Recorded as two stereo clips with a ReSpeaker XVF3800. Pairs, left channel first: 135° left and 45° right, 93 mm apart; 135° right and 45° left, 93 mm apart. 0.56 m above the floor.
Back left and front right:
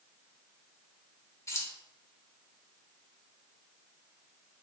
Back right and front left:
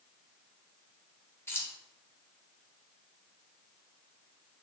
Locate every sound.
1.5 s keys jangling: 175° left, 0.8 m